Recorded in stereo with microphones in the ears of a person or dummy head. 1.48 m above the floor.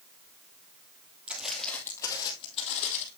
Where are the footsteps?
10° right (ahead or behind), 2.5 m; by 3.1 s 45° left (ahead or behind), 3.5 m.